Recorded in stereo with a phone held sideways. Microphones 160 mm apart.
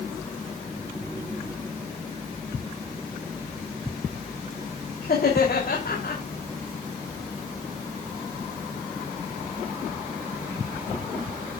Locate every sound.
5.0 s laughter: 75° left (ahead or behind), 3 m